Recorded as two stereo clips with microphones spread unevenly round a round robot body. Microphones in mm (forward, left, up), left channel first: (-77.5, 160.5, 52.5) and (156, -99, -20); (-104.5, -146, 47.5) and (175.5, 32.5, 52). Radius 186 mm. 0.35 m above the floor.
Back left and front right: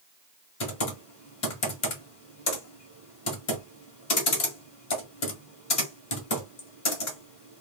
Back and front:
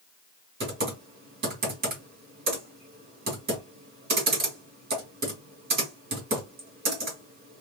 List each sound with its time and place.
0.6 s typing on a keyboard: 85° left, 1.6 m